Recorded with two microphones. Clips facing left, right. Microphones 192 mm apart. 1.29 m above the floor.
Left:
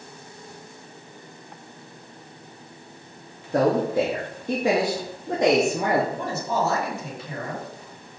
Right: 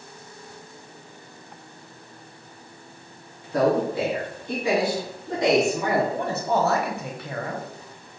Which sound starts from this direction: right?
A man speaking, at 6.1 s.